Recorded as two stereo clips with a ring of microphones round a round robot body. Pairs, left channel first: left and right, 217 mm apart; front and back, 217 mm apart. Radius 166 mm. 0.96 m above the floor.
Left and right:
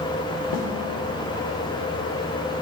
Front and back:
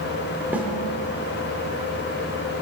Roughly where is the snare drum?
Left.